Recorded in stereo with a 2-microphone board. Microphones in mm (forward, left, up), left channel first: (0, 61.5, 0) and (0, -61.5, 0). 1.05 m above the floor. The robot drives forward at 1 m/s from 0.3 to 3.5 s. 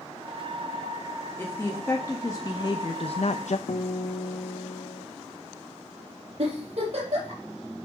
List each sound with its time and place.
1.4 s a woman speaking: 15° left (ahead or behind), 2 m; by 3.6 s 70° left (ahead or behind), 0.7 m
3.7 s a guitar: 65° left (ahead or behind), 1.3 m
6.4 s a giggle: 55° right (ahead or behind), 6.5 m